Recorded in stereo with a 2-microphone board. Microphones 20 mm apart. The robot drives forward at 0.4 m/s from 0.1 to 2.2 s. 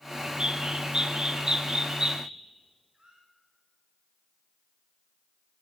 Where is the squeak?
50° right (ahead or behind), 8 m.